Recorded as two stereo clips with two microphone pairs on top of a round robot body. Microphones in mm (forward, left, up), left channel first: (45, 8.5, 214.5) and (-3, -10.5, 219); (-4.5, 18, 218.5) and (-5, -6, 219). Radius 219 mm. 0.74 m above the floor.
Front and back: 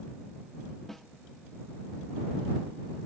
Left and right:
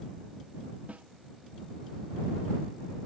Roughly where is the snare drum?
Ahead right.